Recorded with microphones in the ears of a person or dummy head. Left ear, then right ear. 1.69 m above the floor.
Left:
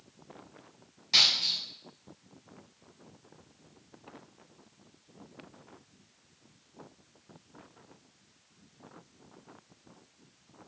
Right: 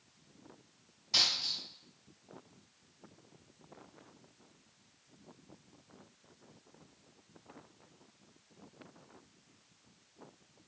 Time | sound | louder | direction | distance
1.1 | a dropped coin | left 6 dB | 45° left (ahead or behind) | 1.8 m